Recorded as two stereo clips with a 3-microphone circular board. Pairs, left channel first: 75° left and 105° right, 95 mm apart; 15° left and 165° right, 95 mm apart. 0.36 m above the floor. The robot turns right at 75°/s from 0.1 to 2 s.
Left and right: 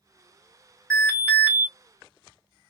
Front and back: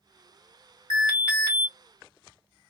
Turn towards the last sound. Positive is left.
turn(degrees=85)